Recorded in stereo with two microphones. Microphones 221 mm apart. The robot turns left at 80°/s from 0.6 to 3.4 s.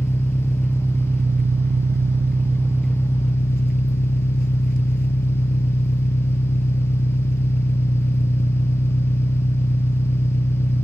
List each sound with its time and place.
0.0 s an engine running: straight ahead, 0.8 m; by 10.8 s 135° left, 0.8 m